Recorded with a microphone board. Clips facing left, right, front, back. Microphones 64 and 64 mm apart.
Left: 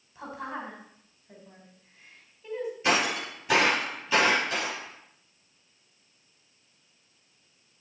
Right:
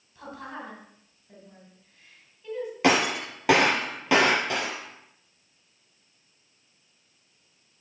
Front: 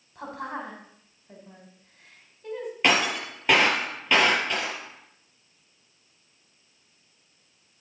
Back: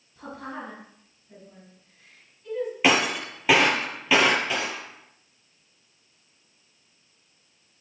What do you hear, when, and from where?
0.1 s a woman speaking: 25° left, 4.5 m
2.8 s breaking glass: 95° right, 4.5 m